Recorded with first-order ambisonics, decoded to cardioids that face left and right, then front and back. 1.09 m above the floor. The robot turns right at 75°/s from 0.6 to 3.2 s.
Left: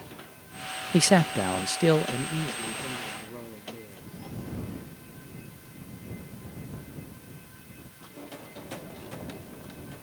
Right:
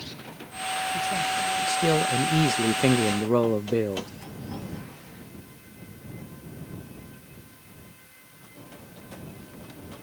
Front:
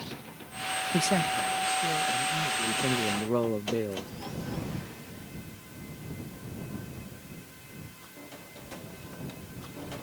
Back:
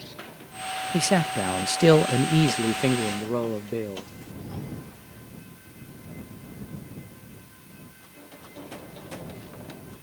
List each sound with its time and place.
0.9 s a man speaking: 100° left; by 4.1 s 90° right